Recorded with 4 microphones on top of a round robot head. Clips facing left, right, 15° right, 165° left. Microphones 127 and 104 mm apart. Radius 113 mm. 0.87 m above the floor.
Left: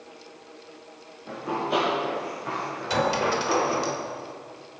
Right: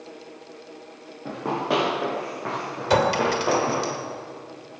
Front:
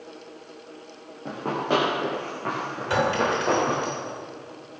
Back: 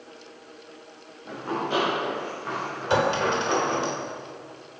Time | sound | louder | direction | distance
1.2 | running footsteps | right 3 dB, front 3 dB | 55° right | 7.5 m
2.9 | a clink | right 4 dB, even | 125° right | 2.5 m